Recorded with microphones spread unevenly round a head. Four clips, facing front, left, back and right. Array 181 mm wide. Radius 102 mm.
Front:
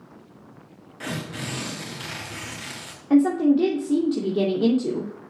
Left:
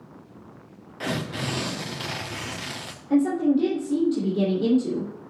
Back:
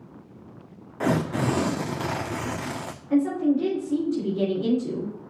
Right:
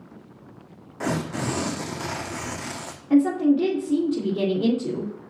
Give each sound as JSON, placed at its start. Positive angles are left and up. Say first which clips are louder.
{"t": 1.0, "sound": "tearing paper", "louder": "right 3 dB, back 9 dB", "azimuth_deg": -165, "distance_m": 0.8}
{"t": 3.1, "sound": "a woman speaking", "louder": "right 2 dB, front 4 dB", "azimuth_deg": -5, "distance_m": 2.5}